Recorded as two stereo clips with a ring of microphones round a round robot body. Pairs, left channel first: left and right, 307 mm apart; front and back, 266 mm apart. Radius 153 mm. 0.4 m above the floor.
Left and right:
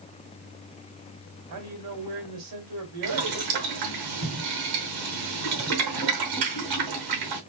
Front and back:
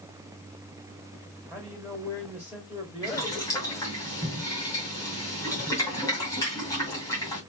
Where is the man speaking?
80° right, 2.5 m.